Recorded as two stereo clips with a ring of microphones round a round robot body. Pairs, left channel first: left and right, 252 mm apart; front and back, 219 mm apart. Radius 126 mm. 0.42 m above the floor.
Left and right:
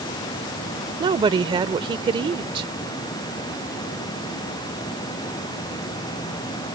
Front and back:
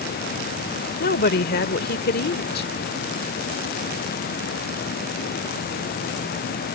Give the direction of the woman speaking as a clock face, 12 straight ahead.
1 o'clock.